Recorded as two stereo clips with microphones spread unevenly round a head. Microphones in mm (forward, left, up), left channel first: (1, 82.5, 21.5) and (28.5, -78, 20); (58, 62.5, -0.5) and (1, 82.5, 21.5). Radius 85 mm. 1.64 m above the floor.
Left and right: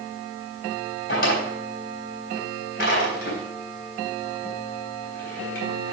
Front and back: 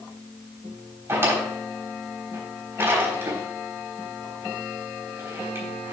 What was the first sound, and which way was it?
A drawer, 135° left.